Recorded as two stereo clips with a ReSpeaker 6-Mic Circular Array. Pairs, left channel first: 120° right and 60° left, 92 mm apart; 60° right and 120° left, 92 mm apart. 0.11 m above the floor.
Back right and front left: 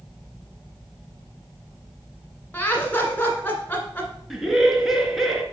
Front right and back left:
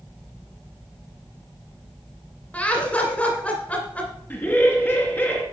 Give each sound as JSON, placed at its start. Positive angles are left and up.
{"t": 2.5, "sound": "laughter", "azimuth_deg": -100, "distance_m": 1.7}
{"t": 4.3, "sound": "laughter", "azimuth_deg": -25, "distance_m": 1.5}